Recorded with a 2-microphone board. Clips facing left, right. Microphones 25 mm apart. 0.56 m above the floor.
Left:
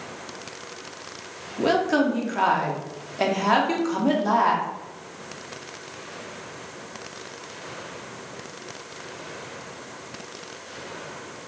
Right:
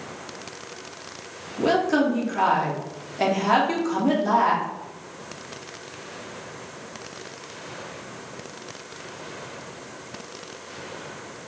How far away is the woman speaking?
About 0.7 m.